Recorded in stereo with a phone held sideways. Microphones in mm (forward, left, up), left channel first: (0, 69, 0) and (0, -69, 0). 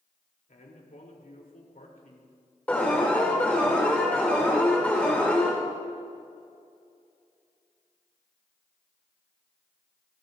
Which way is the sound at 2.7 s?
10° left (ahead or behind).